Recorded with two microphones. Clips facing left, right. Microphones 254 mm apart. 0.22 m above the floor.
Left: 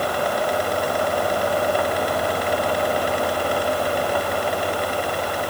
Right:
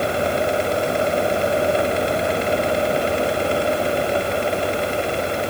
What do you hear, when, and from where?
Only background noise.